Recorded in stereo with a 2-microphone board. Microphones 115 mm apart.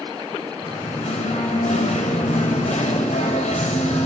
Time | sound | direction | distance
0.6 | singing | 85° left | 3.5 m